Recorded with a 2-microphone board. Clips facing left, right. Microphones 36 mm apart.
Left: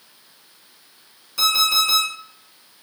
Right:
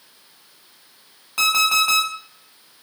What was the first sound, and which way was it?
An alarm clock, 55° right (ahead or behind).